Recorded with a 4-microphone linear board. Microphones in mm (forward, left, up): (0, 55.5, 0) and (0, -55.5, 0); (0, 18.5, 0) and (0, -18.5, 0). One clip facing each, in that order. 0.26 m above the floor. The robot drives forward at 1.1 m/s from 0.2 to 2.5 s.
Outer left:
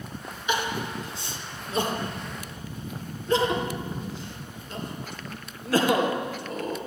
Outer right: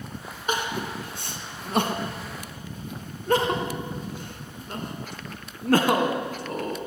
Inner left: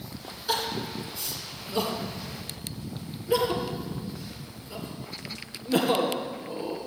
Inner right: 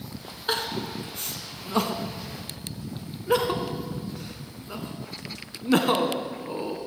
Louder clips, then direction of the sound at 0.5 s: Even, inner right 1 dB; 45° right (ahead or behind).